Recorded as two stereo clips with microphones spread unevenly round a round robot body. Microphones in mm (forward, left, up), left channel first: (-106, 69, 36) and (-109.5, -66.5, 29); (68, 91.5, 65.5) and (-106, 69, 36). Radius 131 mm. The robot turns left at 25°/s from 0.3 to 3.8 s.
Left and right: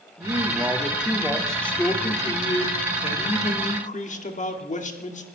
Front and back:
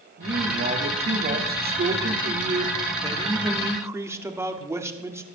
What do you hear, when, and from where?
0.2 s a man speaking: 155° right, 2 m; by 5.2 s 115° left, 2 m